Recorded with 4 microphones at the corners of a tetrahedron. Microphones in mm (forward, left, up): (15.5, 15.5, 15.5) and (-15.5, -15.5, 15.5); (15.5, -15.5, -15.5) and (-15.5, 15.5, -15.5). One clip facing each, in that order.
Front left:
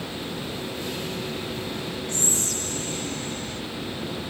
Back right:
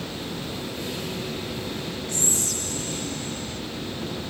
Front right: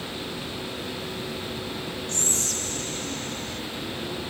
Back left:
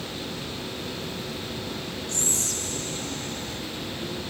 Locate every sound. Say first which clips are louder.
2.1 s whispering: even, front right 1 dB; straight ahead, 4 m